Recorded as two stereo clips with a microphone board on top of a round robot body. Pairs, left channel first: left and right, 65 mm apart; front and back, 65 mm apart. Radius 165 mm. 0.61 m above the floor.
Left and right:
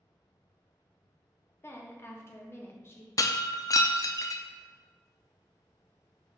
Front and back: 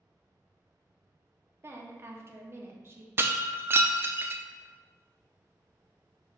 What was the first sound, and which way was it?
A woman speaking, 135° left.